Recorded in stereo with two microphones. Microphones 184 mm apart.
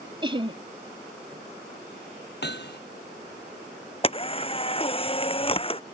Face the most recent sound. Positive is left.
turn(degrees=30)  # may be behind; listen again after turning